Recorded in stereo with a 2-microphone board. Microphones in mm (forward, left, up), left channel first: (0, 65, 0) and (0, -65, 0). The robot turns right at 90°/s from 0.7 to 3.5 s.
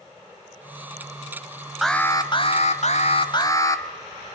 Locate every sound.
1.8 s an alarm: straight ahead, 1.6 m; by 3.9 s 150° left, 1.6 m